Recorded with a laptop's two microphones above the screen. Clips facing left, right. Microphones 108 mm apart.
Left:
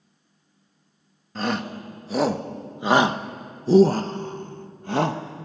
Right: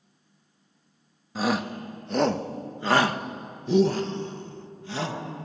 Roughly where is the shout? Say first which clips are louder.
Right 1 dB; centre.